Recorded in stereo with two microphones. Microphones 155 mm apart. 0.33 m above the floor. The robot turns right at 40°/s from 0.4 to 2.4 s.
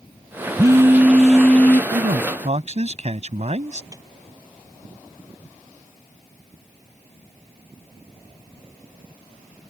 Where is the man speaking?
60° right (ahead or behind); by 3.8 s 50° right (ahead or behind).